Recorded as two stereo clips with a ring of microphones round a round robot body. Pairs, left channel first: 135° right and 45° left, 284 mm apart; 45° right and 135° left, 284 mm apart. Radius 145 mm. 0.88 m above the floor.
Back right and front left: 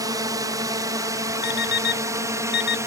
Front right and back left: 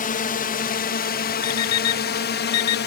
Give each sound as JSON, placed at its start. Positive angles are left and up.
{"t": 0.0, "sound": "a drone", "azimuth_deg": -20}
{"t": 1.4, "sound": "an alarm clock", "azimuth_deg": -80}